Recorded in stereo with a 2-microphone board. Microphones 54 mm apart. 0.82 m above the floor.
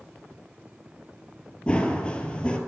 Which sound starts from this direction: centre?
Running footsteps, at 1.7 s.